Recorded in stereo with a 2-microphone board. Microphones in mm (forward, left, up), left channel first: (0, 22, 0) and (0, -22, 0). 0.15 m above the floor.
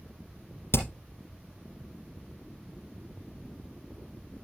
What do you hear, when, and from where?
0.7 s hammering: 70° left (ahead or behind), 3.5 m